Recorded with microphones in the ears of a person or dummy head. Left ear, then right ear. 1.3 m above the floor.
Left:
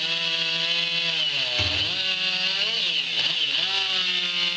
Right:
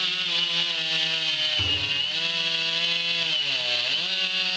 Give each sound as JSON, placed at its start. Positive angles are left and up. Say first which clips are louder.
{"t": 1.6, "sound": "a thud", "louder": "left 1 dB", "side_deg": 15, "distance_m": 4.5}